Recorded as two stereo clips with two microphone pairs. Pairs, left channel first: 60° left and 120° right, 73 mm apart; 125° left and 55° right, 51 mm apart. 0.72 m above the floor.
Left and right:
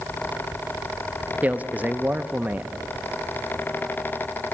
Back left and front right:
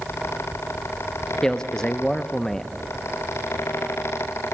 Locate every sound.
1.4 s a man speaking: 165° right, 0.5 m